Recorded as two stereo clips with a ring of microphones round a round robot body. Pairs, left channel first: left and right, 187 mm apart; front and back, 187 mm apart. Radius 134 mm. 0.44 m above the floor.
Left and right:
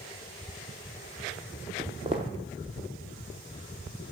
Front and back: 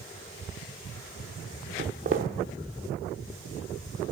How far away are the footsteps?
About 0.5 m.